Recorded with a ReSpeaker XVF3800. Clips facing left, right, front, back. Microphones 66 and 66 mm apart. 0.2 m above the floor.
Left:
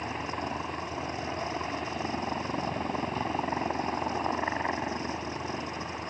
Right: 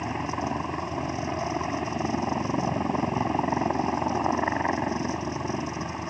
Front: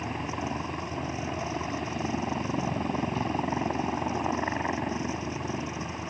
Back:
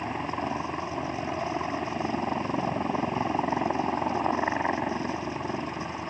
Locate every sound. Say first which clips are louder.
0.0 s a helicopter: right 4 dB, back 2 dB; 140° right